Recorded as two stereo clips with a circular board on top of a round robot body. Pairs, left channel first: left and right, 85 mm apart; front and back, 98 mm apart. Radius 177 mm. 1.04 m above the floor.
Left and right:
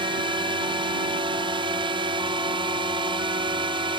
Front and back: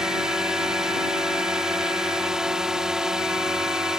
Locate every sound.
0.0 s a drone: 95° right